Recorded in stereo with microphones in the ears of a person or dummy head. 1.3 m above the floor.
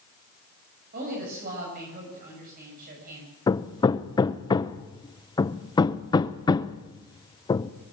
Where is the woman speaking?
50° right (ahead or behind), 7 m.